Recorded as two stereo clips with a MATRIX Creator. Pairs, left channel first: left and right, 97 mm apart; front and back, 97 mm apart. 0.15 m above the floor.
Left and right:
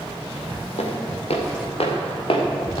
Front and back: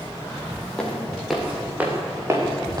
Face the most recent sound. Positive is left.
turn(degrees=130)